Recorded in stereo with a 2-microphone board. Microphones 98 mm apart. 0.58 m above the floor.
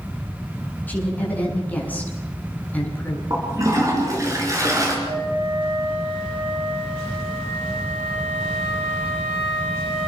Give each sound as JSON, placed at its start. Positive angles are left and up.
{"t": 0.9, "sound": "a woman speaking", "side_deg": 15, "distance_m": 8.0}
{"t": 3.3, "sound": "a toilet flushing", "side_deg": -35, "distance_m": 7.0}
{"t": 5.0, "sound": "a flute", "side_deg": -70, "distance_m": 7.0}